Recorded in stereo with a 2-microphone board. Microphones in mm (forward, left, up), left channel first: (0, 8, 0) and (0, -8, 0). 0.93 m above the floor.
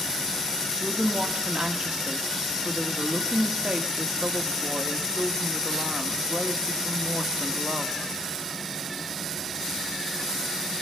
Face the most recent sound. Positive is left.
turn(degrees=-60)  # may be behind; listen again after turning